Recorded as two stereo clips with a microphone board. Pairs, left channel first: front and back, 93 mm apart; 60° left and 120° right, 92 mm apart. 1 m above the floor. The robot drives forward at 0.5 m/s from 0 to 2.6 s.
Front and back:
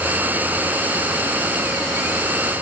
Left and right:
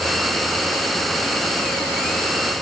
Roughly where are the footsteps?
I don't hear footsteps.